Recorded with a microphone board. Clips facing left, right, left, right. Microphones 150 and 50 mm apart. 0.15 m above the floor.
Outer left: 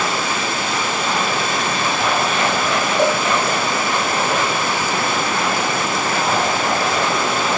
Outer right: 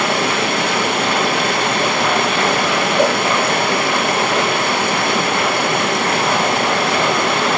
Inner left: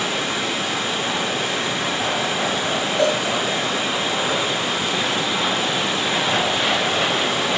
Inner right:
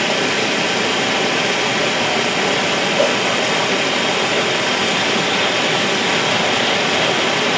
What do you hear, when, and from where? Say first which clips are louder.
0.0 s running water: outer right 4 dB, inner right 6 dB; 65° right (ahead or behind), 2.5 m
3.0 s a cowbell: outer right 2 dB, inner right 2 dB; 15° right (ahead or behind), 7 m